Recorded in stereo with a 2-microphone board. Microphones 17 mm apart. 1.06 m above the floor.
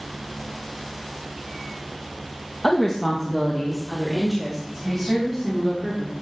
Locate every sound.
2.6 s a woman speaking: 25° left (ahead or behind), 1.1 m; by 6.1 s 5° right (ahead or behind), 4 m